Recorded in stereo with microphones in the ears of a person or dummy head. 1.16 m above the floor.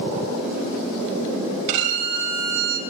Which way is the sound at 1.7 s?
65° right (ahead or behind).